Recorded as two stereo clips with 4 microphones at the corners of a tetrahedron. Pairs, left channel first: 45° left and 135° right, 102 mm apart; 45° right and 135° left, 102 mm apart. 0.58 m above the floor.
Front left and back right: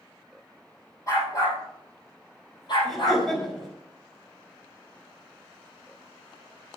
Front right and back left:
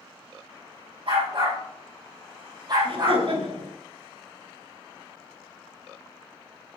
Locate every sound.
1.1 s a dog barking: 105° left, 5.5 m; by 3.2 s 85° left, 5 m
2.8 s laughter: 135° left, 4 m